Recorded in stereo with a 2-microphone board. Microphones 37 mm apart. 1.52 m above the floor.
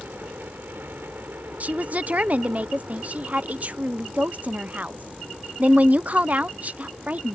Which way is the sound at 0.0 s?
70° right (ahead or behind).